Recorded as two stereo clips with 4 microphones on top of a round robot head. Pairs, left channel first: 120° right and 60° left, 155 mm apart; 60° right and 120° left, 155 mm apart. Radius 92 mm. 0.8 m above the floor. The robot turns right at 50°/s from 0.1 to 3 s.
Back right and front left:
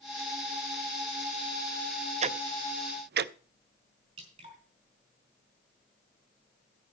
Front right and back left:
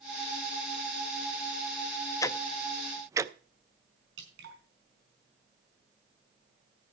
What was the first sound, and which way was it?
Ticking, 10° left.